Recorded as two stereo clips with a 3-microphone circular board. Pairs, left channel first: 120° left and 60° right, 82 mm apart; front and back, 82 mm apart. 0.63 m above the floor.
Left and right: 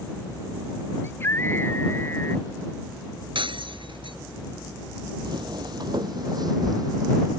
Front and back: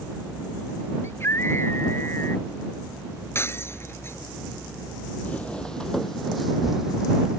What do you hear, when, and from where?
1.0 s a scream: 60° left
3.4 s breaking glass: 60° right
5.2 s footsteps: 75° right; by 7.4 s 100° right